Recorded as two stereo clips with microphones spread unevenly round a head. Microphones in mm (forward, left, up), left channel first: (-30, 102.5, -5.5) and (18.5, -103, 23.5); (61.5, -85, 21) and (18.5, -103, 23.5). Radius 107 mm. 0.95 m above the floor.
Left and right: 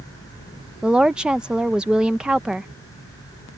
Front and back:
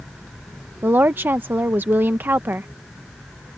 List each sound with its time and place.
0.8 s a woman speaking: 170° right